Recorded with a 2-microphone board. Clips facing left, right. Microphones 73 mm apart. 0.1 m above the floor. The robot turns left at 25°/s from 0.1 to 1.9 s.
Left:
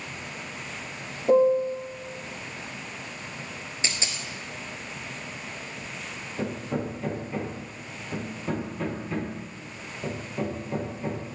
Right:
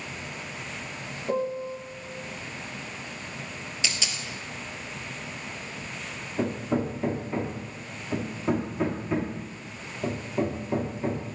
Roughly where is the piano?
Left.